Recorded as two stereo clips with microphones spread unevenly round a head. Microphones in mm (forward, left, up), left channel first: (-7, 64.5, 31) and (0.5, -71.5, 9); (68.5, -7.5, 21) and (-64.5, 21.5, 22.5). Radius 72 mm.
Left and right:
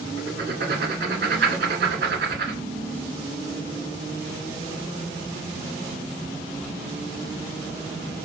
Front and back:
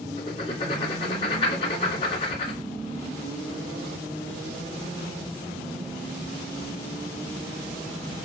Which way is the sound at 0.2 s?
65° right.